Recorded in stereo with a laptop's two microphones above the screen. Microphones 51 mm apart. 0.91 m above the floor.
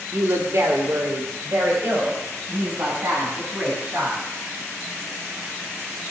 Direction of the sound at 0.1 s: 65° right (ahead or behind).